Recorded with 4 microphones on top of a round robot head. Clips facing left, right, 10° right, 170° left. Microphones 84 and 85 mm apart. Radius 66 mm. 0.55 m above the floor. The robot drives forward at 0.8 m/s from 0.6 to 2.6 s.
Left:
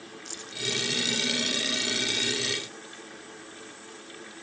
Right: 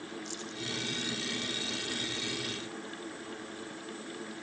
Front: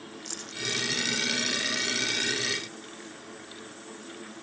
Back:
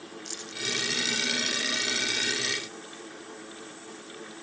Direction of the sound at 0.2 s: 40° left.